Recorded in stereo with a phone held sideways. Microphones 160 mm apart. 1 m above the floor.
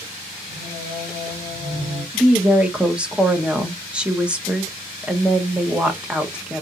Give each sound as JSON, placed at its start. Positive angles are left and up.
{"t": 0.5, "sound": "singing", "side_deg": -35, "distance_m": 3.0}
{"t": 2.1, "sound": "a woman speaking", "side_deg": -5, "distance_m": 0.7}